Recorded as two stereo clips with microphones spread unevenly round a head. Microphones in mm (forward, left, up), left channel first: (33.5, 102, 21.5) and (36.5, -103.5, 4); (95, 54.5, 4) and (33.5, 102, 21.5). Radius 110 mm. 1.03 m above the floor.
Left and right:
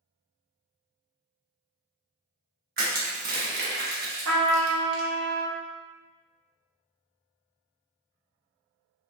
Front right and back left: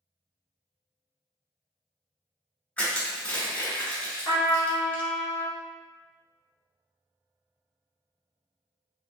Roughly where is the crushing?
Behind right.